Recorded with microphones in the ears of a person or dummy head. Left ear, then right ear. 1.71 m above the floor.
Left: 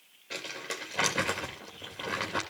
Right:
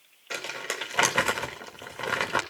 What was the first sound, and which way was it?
Crumpling, 40° right (ahead or behind).